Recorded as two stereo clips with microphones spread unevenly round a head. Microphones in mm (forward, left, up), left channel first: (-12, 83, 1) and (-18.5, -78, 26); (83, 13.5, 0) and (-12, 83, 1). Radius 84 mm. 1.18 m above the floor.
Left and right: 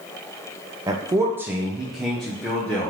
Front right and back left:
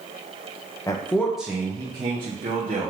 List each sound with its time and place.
0.9 s a man speaking: 30° right, 0.5 m; by 2.9 s 160° left, 1.0 m